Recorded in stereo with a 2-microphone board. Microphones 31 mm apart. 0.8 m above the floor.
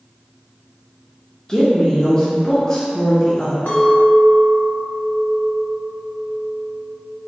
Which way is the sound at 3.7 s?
85° left.